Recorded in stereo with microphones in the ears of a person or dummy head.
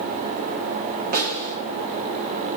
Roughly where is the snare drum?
Right.